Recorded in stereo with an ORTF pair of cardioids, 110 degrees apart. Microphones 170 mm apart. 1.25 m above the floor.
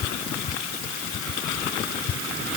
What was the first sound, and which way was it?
Only background noise.